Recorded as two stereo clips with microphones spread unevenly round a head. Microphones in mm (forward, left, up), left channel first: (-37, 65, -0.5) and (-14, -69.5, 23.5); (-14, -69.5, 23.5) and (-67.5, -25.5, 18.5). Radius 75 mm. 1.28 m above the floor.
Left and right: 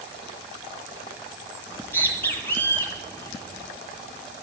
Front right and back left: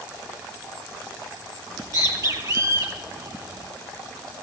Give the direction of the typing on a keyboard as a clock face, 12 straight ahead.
No typing on a keyboard in this recording.